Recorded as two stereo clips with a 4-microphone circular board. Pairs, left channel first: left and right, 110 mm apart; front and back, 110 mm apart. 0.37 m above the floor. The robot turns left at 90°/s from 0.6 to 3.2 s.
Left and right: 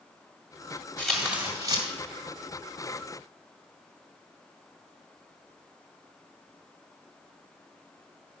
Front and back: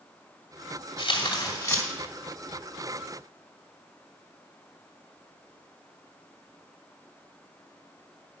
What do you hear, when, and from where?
1.0 s tearing paper: 10° left, 2 m; by 1.9 s 65° right, 2 m